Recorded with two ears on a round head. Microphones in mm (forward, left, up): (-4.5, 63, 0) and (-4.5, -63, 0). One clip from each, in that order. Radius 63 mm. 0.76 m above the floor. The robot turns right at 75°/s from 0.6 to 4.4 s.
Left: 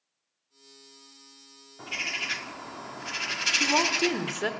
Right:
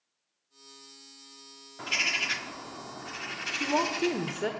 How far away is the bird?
About 1.1 m.